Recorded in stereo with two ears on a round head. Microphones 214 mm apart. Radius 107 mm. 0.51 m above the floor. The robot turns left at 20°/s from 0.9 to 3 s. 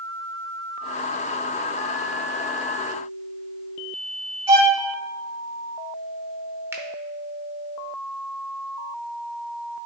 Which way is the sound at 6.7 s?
10° right (ahead or behind).